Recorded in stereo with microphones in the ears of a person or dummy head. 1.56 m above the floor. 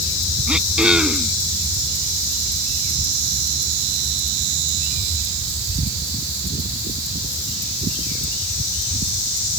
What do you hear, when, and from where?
0.5 s throat clearing: 10° right (ahead or behind)